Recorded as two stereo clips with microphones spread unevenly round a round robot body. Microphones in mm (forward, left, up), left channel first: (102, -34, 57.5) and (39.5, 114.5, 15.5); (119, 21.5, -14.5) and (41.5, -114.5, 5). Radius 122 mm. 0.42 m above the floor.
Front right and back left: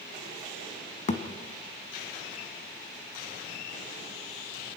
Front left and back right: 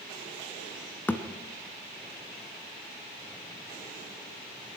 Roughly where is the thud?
Ahead.